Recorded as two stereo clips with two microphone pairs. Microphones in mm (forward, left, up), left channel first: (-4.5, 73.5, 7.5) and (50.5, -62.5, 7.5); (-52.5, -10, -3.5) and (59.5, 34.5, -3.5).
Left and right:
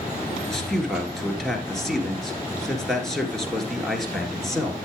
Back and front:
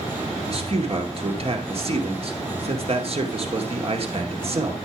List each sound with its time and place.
0.4 s a man speaking: 25° left, 2.0 m